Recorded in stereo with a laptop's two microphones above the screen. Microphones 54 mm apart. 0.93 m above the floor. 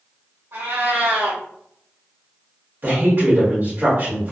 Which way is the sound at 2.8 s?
45° right (ahead or behind).